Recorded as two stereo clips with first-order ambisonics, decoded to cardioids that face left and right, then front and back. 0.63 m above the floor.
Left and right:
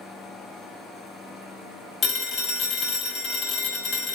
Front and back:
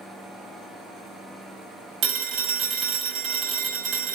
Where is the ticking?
I don't hear ticking.